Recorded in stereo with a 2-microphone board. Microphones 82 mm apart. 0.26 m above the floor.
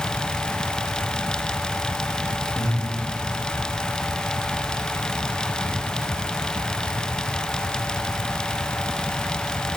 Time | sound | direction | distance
2.5 | breathing | 25° left (ahead or behind) | 4 m